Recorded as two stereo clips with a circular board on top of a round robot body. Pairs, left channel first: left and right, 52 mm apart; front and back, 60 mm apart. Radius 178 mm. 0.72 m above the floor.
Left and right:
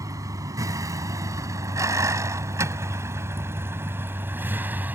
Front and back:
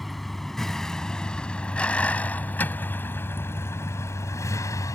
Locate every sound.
0.0 s a vehicle: 90° right; by 5.0 s 35° right